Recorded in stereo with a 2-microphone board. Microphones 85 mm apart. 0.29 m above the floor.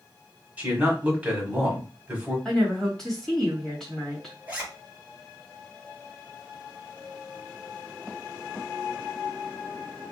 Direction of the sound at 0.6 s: 15° right (ahead or behind).